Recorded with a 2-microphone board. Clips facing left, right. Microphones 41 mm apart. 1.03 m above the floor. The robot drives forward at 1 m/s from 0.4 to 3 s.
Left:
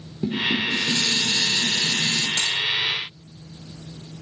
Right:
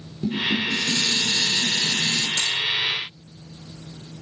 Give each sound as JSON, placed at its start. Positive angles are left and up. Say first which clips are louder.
{"t": 0.2, "sound": "dishes clattering", "louder": "even", "side_deg": 25, "distance_m": 2.5}
{"t": 2.4, "sound": "a dropped coin", "louder": "even", "side_deg": 60, "distance_m": 3.5}